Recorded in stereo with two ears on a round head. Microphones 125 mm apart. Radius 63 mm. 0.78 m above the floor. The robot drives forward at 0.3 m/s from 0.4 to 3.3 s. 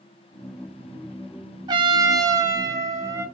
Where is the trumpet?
30° right (ahead or behind), 0.9 m; by 3.2 s 20° right (ahead or behind), 1.3 m.